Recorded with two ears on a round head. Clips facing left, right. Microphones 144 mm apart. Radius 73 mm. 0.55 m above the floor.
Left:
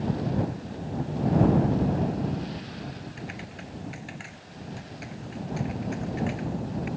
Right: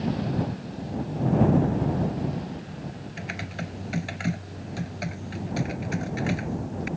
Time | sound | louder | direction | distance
3.2 | typing on a keyboard | right 4 dB | 65° right (ahead or behind) | ?